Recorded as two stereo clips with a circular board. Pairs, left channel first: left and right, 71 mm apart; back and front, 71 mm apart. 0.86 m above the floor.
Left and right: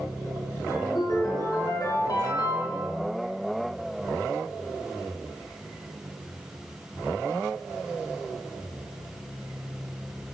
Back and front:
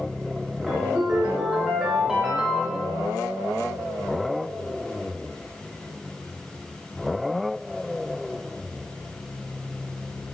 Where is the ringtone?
80° left, 5.5 m.